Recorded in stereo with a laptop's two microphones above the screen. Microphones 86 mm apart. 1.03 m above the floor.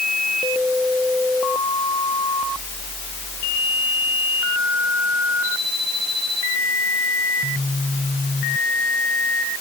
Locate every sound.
Only background noise.